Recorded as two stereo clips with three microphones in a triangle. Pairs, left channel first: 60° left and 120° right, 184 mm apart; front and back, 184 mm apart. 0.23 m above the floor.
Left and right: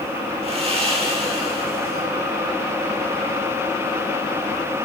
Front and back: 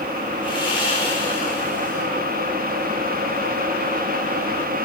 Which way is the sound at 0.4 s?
65° right.